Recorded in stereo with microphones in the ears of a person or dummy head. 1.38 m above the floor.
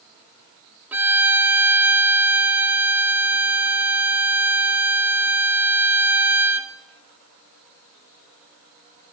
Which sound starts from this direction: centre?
A violin, at 0.9 s.